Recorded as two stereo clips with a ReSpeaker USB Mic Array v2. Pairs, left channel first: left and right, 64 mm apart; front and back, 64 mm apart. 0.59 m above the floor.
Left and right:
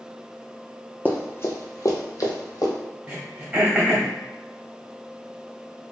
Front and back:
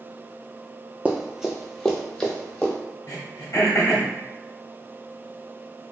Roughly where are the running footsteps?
Behind left.